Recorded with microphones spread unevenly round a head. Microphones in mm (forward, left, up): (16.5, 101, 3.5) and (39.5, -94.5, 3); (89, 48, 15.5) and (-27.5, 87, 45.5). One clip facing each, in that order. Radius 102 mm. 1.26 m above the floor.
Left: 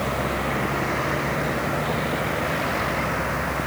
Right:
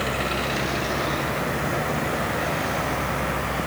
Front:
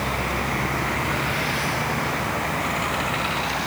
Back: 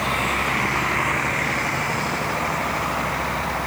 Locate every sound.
Only background noise.